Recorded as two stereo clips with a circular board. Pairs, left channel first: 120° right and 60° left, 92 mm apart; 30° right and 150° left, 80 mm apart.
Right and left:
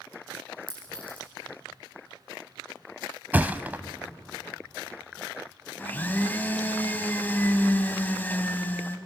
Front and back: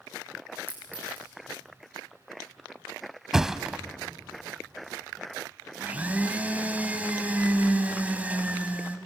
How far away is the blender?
About 1.1 m.